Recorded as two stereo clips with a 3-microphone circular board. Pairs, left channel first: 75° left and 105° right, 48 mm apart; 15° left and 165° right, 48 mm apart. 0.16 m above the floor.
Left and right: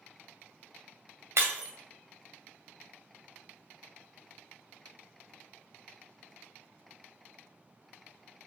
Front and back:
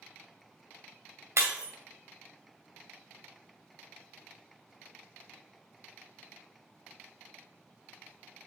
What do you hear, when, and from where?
1.4 s breaking glass: 140° right, 2.5 m